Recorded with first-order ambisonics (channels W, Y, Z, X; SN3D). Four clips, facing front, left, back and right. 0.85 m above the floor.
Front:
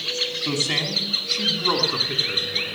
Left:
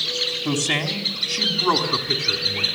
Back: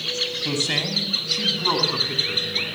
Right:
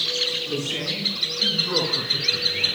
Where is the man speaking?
105° left, 5 m; by 2.7 s 110° left, 8 m.